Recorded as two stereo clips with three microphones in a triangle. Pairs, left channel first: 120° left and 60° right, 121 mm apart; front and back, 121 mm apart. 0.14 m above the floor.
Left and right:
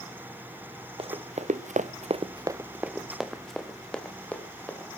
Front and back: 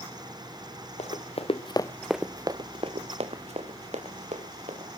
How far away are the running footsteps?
About 1.4 m.